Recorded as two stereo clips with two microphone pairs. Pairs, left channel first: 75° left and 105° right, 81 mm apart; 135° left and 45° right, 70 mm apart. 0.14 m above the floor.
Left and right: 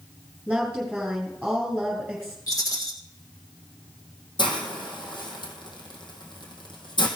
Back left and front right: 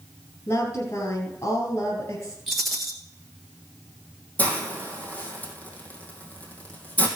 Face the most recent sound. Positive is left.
turn(degrees=70)